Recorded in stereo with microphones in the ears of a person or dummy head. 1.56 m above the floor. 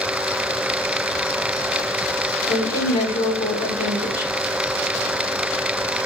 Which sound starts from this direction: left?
A woman speaking, at 2.5 s.